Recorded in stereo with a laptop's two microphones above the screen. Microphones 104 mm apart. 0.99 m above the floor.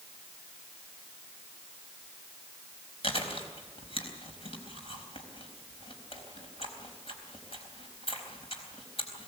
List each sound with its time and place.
3.0 s chewing: 60° left (ahead or behind), 4 m